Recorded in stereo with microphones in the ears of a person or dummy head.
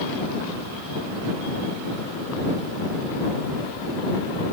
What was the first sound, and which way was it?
Only background noise.